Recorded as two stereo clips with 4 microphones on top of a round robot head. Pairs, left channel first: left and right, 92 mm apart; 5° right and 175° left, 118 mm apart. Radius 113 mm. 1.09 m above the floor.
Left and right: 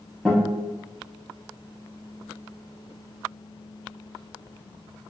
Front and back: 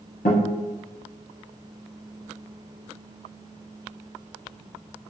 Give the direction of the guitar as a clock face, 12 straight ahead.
12 o'clock.